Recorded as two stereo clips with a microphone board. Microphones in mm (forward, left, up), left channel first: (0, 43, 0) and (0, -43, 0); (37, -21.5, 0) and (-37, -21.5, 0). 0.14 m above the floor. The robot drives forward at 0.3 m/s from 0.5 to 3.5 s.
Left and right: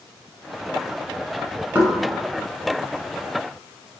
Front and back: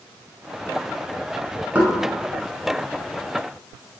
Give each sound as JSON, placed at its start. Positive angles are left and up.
{"t": 1.8, "sound": "knocking", "azimuth_deg": -130, "distance_m": 1.1}